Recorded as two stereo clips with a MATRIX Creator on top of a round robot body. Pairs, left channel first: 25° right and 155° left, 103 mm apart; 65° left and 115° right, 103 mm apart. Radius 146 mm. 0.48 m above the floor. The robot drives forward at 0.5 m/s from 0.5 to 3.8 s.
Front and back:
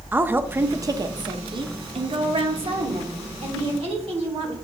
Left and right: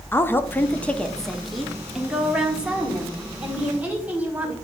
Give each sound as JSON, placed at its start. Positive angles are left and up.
{"t": 0.1, "sound": "a woman speaking", "azimuth_deg": 110, "distance_m": 0.7}